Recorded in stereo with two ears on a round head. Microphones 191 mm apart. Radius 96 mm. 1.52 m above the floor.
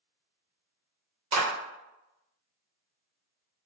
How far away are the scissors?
I don't hear scissors.